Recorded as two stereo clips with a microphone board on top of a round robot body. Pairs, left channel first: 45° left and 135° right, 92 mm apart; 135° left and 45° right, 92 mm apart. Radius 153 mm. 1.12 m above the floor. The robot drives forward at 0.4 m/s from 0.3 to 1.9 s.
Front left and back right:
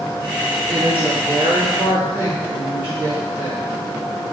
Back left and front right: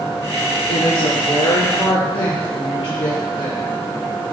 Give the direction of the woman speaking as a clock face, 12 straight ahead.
7 o'clock.